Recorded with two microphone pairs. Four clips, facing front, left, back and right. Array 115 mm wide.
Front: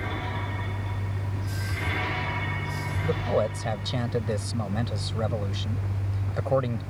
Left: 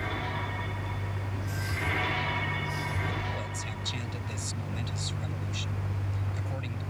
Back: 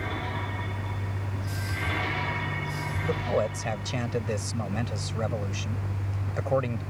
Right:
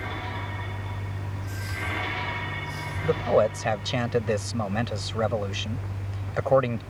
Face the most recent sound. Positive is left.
turn(degrees=-85)